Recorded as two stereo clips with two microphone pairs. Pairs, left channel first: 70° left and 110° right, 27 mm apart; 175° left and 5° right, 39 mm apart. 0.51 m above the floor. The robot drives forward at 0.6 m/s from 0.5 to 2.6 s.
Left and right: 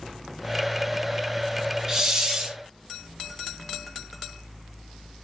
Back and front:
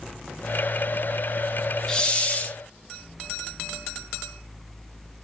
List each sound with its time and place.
1.9 s a hiss: 150° right, 0.7 m; by 2.6 s 165° right, 0.9 m